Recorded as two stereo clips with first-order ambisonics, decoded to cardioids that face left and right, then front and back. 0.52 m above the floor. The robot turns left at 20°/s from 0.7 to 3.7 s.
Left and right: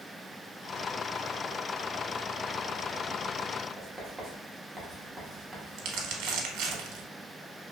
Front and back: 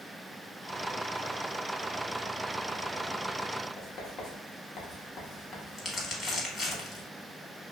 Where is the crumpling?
70° right, 0.8 m.